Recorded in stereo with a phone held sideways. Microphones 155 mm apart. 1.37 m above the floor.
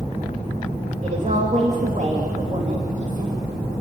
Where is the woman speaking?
50° right (ahead or behind), 2.5 m.